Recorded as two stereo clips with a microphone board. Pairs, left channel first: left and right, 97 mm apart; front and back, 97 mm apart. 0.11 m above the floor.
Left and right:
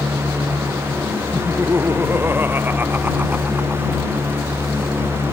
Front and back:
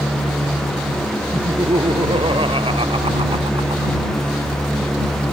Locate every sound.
1.3 s laughter: 155° right; by 4.0 s 165° right